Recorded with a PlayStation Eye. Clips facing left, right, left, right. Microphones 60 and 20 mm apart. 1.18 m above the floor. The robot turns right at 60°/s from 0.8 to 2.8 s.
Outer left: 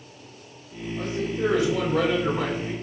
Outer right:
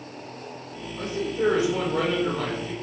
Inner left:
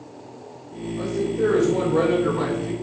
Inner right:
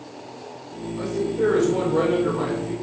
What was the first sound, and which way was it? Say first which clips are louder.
A man speaking: even, even; 75° right.